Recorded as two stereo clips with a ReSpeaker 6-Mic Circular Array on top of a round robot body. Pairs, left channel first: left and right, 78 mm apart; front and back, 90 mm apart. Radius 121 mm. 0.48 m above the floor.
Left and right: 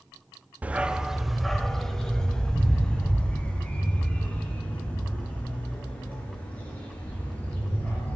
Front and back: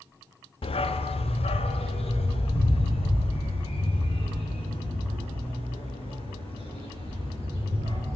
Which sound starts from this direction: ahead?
A dog barking, at 0.6 s.